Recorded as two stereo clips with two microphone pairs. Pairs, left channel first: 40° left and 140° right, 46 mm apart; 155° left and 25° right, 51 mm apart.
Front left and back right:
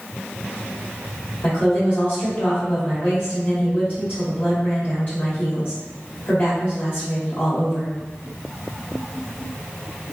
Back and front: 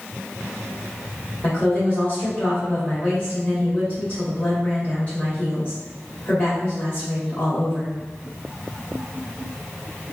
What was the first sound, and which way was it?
A woman speaking, 90° left.